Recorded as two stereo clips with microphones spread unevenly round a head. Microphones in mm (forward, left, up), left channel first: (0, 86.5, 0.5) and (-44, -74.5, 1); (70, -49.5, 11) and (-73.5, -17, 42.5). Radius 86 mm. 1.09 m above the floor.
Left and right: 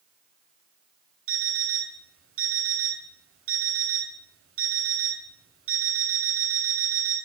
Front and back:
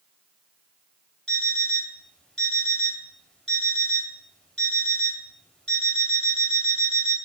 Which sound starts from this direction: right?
An alarm clock, at 1.3 s.